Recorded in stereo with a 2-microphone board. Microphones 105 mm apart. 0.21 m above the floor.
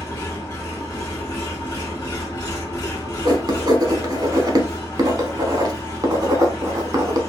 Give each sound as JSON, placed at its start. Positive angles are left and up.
{"t": 0.0, "sound": "an engine running", "side_deg": 35, "distance_m": 1.4}
{"t": 3.2, "sound": "writing", "side_deg": -40, "distance_m": 0.7}